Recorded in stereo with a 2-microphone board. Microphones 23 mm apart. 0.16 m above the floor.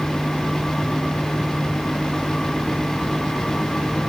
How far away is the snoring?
No snoring in this recording.